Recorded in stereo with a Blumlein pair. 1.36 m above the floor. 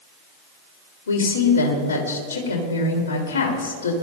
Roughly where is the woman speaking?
Ahead left.